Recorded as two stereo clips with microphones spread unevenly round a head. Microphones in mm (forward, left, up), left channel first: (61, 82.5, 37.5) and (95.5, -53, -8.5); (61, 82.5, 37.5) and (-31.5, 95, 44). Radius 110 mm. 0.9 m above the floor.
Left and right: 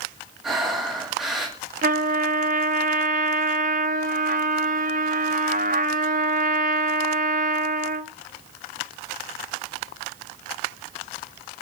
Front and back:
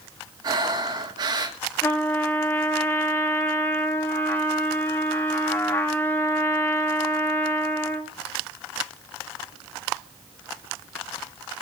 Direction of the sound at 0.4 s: 150° right.